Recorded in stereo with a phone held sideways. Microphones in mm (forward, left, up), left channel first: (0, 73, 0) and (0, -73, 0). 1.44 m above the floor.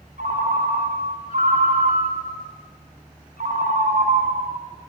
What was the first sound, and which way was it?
A ringtone, 70° right (ahead or behind).